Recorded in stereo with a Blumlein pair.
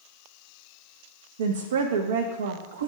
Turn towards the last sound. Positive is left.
turn(degrees=-60)